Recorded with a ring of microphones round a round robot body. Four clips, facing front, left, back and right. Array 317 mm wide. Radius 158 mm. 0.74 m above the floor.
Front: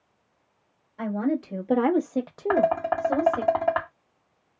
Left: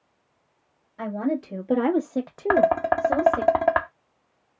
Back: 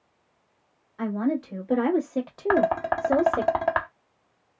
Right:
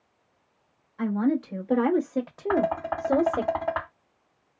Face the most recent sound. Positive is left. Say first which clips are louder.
# left 6 dB, even
turn(degrees=100)